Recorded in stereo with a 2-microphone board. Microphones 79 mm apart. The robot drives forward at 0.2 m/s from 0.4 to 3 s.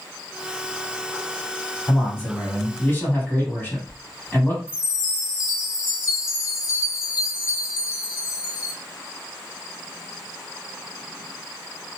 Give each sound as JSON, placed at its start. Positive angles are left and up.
{"t": 1.9, "sound": "a man speaking", "side_deg": 25, "distance_m": 1.7}
{"t": 4.7, "sound": "a chime", "side_deg": -10, "distance_m": 1.4}